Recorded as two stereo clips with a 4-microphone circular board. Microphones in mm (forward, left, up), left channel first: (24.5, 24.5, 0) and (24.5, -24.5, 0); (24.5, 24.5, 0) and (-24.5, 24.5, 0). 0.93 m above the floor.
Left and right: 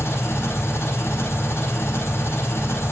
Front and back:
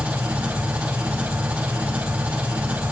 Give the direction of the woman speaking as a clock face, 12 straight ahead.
No woman speaking in this recording.